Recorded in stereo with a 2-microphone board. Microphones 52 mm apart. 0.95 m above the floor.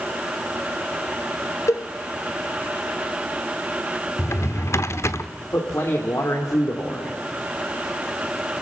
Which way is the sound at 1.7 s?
65° left (ahead or behind).